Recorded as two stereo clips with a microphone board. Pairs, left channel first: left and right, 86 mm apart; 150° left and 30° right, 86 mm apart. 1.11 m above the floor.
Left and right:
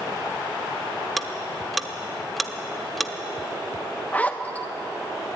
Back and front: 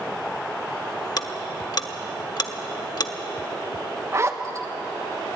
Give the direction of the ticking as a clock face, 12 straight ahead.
6 o'clock.